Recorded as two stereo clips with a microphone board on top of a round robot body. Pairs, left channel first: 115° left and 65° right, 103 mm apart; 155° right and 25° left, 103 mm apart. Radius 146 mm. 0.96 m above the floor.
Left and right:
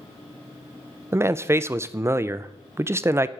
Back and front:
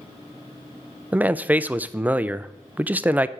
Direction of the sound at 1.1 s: 35° right.